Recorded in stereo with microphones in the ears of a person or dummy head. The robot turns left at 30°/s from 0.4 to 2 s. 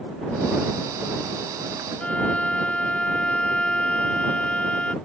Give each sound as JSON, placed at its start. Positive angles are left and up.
{"t": 2.0, "sound": "a violin", "side_deg": 10}